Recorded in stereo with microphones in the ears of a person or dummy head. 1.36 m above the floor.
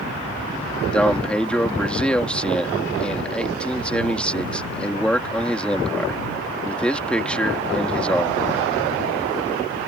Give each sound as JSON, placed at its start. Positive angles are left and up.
{"t": 0.9, "sound": "a man speaking", "side_deg": 5}